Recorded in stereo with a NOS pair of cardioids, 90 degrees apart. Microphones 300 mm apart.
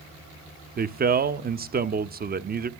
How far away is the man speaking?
About 0.8 m.